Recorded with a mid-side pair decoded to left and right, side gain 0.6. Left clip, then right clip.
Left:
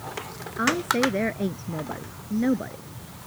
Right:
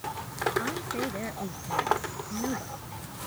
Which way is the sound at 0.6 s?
45° left.